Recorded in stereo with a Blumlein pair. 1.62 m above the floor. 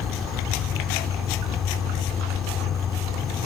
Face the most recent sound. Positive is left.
turn(degrees=25)